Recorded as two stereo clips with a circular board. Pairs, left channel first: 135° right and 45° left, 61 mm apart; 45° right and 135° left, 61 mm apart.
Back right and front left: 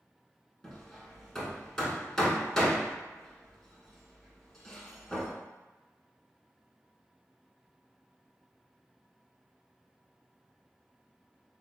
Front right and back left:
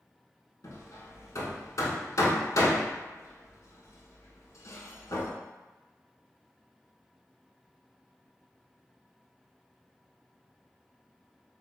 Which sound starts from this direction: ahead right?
Hammering, at 0.6 s.